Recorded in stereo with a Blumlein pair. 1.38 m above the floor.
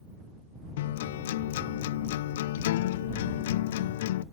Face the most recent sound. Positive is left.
turn(degrees=55)